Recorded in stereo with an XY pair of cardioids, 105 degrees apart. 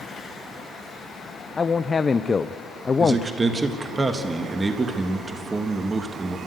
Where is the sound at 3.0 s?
25° right, 1.5 m.